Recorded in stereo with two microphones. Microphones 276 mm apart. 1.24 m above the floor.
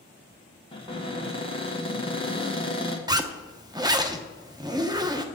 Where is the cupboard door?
20° left (ahead or behind), 1.3 m.